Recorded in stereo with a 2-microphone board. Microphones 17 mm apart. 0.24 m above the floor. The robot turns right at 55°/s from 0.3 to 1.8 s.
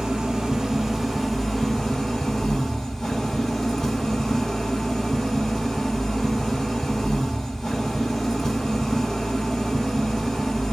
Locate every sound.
0.0 s an engine running: 55° right, 2.0 m; by 10.7 s 30° left, 2.0 m